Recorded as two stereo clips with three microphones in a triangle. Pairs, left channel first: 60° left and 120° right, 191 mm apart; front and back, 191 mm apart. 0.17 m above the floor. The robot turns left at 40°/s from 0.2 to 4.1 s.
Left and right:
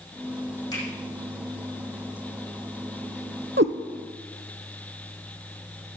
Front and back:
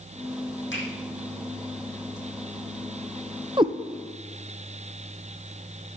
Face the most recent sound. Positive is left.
turn(degrees=-135)